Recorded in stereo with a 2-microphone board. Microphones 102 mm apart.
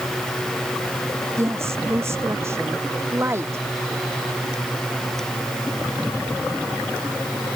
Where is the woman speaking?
25° right (ahead or behind).